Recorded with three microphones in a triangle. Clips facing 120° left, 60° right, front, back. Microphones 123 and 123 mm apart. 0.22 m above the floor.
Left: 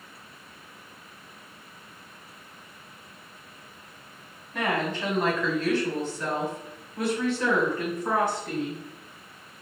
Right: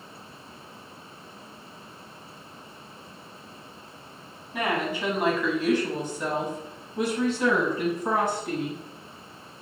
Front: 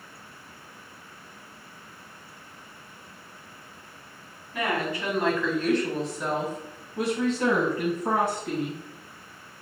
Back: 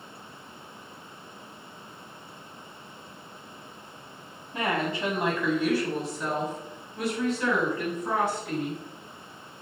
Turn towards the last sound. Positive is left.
turn(degrees=15)